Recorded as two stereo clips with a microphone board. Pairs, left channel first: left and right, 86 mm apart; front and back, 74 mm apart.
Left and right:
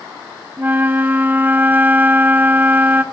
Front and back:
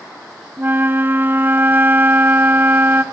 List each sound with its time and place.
0.6 s a flute: 140° right, 0.9 m